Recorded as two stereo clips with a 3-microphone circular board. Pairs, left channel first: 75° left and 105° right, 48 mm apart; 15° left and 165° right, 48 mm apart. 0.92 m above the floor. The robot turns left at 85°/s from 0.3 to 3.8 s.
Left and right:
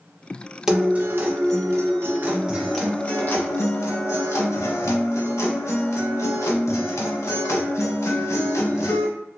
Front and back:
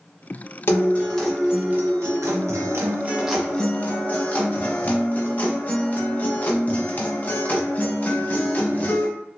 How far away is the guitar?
About 0.6 m.